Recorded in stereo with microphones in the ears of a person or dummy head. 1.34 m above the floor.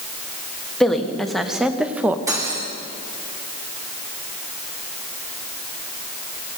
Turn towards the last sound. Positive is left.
turn(degrees=-20)  # may be behind; listen again after turning